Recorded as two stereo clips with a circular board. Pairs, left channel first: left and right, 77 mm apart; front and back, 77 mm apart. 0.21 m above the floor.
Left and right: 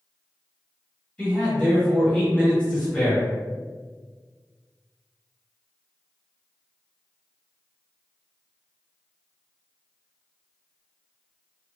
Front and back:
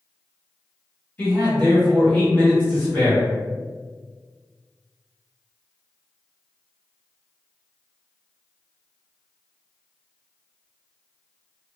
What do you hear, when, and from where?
1.2 s a man speaking: 30° left, 1.6 m